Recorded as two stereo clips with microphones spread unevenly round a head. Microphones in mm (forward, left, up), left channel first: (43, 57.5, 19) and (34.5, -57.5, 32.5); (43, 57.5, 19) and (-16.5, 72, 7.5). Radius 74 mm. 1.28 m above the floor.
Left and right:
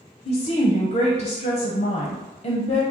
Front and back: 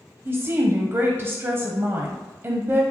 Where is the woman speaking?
110° left, 0.7 m.